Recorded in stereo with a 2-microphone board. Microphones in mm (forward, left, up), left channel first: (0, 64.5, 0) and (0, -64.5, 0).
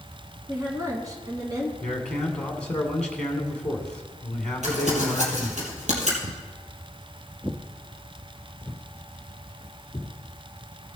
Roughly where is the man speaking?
Centre.